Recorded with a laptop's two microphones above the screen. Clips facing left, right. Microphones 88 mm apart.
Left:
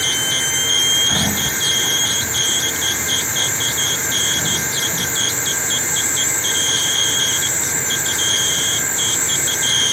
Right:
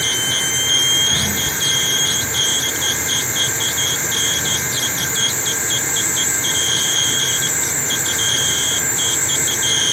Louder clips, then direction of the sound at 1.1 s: Left 2 dB; 30° left (ahead or behind).